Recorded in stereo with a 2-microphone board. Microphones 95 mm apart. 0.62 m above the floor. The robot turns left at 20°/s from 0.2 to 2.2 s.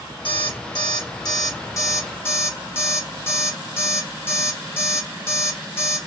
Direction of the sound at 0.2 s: 65° left (ahead or behind).